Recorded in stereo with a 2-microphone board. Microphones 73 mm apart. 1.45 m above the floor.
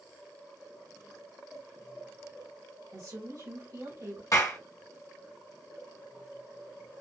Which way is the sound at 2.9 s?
50° right (ahead or behind).